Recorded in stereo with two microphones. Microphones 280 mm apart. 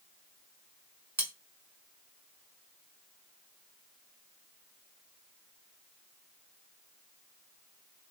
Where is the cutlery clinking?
75° right (ahead or behind), 1.4 m.